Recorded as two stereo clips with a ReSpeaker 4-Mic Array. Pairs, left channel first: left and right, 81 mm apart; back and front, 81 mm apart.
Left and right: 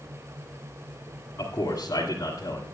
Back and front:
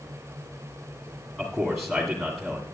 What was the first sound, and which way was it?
A man speaking, 85° left.